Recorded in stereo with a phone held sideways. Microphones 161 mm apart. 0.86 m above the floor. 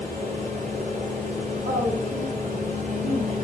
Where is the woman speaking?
70° right (ahead or behind), 1.7 m.